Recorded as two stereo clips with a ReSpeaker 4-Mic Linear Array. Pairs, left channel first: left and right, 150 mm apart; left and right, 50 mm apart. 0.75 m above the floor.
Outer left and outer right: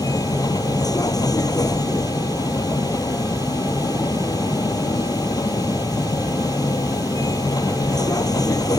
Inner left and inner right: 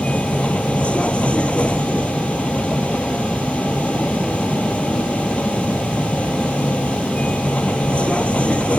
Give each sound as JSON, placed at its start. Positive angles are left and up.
{"t": 0.0, "sound": "a vehicle", "side_deg": 25}